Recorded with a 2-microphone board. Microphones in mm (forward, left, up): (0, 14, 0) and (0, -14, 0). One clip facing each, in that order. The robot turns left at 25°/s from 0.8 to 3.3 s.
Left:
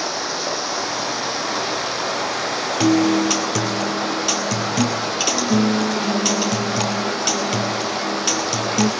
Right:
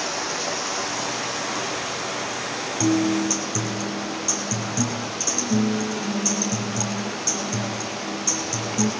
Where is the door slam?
I don't hear a door slam.